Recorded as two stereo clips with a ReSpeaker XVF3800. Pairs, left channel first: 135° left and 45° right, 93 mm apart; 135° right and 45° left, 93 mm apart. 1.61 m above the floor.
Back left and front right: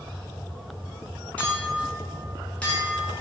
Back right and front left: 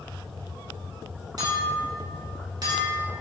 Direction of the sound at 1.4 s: 65° left.